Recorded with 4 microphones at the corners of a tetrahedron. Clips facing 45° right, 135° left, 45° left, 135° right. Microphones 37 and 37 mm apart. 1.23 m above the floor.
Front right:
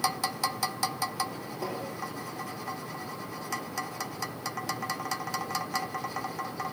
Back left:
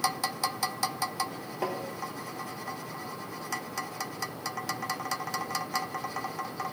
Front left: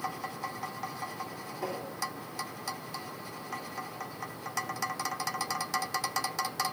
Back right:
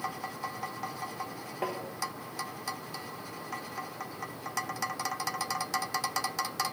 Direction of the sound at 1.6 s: Straight behind.